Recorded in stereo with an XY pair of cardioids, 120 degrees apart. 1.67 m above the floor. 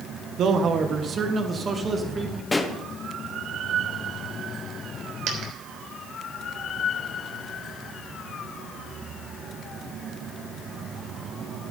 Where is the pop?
15° left, 1.2 m.